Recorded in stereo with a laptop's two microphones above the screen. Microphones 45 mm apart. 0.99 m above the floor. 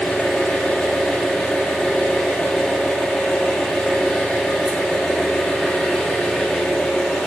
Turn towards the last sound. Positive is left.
turn(degrees=15)  # may be behind; listen again after turning